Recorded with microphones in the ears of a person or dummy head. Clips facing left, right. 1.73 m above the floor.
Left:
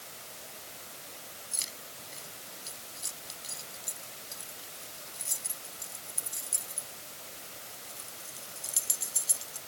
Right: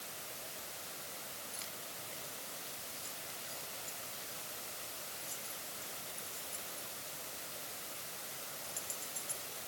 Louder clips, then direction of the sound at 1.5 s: Even; 70° left (ahead or behind).